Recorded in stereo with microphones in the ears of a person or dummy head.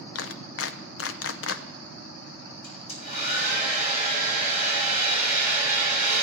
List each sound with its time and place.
0.1 s a clap: 75° left (ahead or behind), 0.6 m
2.6 s a hair dryer: 55° left (ahead or behind), 7 m